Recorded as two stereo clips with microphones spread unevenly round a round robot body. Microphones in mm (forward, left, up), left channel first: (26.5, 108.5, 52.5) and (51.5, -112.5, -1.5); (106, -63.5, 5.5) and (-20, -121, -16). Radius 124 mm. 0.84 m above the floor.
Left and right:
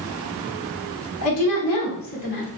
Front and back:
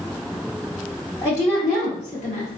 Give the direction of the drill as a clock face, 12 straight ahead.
I don't hear a drill.